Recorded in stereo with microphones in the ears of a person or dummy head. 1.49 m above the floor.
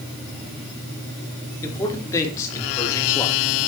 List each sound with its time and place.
1.6 s a man speaking: 15° left (ahead or behind), 5.5 m